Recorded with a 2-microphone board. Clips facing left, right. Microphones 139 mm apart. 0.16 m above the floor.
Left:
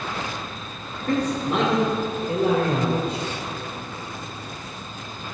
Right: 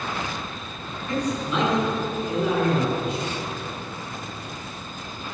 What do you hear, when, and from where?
1.1 s a man speaking: 60° left (ahead or behind), 3 m; by 3.2 s 40° left (ahead or behind), 5 m